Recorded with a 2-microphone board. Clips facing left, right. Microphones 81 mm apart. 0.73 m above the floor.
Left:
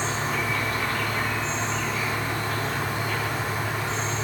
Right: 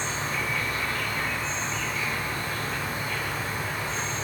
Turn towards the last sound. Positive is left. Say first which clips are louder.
# left 3 dB
turn(degrees=75)  # may be behind; listen again after turning